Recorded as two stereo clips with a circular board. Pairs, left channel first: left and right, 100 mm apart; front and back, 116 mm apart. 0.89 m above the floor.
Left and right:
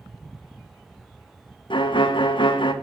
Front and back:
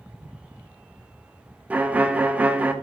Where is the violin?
105° left, 0.6 m.